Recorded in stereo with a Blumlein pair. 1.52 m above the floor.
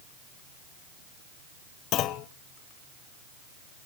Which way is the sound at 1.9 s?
35° left.